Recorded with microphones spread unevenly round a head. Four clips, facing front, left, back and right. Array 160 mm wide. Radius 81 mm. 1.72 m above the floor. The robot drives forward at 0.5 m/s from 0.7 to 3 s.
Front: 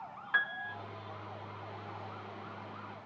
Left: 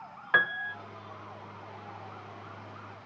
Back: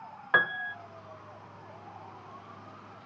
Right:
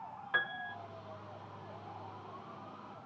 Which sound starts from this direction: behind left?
A piano, at 0.3 s.